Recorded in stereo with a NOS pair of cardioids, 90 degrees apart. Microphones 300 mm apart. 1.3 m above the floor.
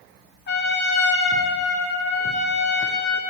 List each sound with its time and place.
0.5 s a trumpet: 35° left, 2 m